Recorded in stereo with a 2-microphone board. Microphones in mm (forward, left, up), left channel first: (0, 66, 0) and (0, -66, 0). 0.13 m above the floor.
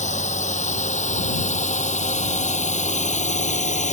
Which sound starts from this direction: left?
A drone, at 0.0 s.